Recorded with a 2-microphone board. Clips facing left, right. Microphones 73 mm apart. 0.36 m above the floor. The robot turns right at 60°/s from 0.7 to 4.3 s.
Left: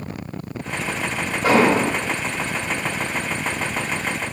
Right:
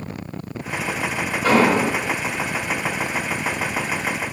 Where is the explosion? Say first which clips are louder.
Even; 70° left, 1.8 m; by 1.9 s 100° left, 1.8 m.